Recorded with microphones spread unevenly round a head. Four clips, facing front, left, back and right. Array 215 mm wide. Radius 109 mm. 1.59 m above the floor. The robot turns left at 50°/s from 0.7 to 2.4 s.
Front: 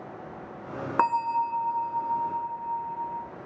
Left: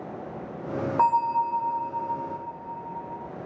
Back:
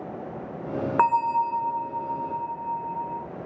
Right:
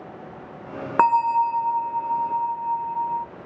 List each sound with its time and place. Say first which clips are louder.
1.0 s a bell: right 5 dB, back 3 dB; 90° right, 0.5 m; by 3.2 s 160° right, 0.5 m